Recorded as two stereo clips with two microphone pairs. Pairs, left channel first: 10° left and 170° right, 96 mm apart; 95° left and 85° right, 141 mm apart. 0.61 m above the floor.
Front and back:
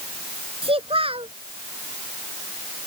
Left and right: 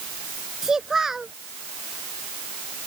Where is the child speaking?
170° right.